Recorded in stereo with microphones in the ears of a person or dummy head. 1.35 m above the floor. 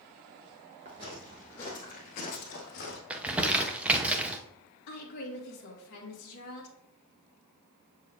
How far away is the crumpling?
About 0.7 m.